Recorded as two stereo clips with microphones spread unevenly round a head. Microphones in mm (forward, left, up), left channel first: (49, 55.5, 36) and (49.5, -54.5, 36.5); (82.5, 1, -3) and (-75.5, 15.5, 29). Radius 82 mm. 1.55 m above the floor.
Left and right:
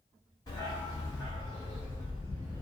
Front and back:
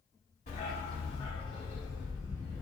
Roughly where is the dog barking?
Ahead left.